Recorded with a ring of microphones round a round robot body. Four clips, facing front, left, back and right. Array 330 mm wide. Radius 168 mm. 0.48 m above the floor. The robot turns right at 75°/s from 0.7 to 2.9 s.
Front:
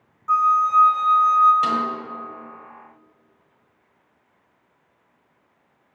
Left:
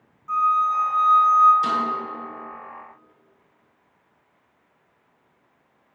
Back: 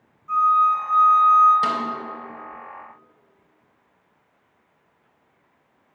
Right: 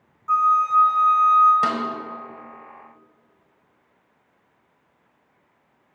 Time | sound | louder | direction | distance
0.3 | a flute | right 2 dB, even | 25° right | 0.9 m
1.6 | a snare drum | even, front 2 dB | 100° right | 1.4 m